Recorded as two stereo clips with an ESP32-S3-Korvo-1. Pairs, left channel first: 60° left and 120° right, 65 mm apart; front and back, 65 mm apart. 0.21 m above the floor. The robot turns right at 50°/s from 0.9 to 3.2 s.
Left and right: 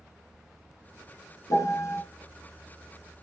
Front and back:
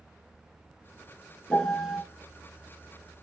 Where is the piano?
75° left, 1.5 m; by 2.0 s 100° left, 1.5 m.